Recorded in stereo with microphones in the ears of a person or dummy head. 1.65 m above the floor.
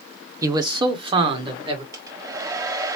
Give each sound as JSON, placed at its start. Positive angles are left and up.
{"t": 0.4, "sound": "a man speaking", "side_deg": -20, "distance_m": 0.7}
{"t": 1.9, "sound": "a hair dryer", "side_deg": -20, "distance_m": 0.6}